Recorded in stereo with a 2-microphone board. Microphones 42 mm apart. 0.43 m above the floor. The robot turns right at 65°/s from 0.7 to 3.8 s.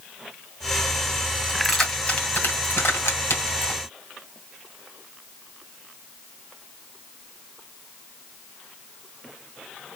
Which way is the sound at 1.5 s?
15° right (ahead or behind).